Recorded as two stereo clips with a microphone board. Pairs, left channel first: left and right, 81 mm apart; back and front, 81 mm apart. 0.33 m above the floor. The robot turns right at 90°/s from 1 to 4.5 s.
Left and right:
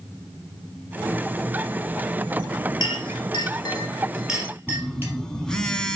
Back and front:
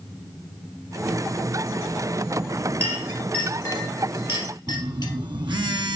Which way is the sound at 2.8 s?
55° left.